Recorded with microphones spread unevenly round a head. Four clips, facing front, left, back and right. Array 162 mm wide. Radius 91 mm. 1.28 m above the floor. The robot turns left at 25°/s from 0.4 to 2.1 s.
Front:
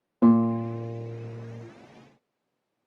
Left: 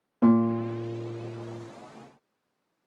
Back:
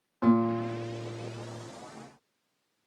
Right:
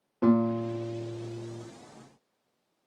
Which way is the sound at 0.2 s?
10° left.